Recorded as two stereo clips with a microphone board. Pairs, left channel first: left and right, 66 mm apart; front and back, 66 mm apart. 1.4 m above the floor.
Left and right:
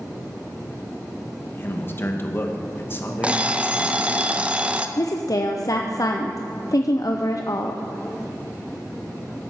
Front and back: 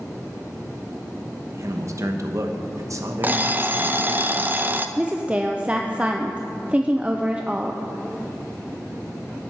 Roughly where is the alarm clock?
Behind right.